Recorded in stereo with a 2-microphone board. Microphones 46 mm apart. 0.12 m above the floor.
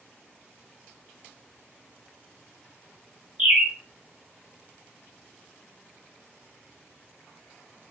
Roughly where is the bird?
Right.